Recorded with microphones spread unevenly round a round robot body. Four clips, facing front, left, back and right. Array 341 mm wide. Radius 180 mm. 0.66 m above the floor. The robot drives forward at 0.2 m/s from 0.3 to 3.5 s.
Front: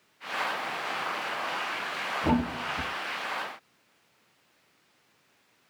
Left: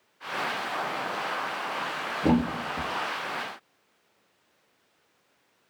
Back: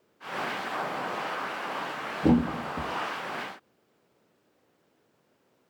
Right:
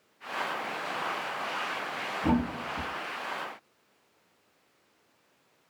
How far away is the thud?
About 0.7 m.